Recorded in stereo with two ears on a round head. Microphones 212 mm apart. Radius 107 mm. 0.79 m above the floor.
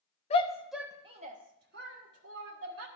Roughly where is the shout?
Left.